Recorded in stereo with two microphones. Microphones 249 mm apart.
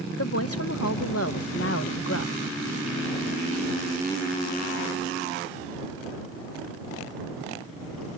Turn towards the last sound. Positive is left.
turn(degrees=60)  # may be behind; listen again after turning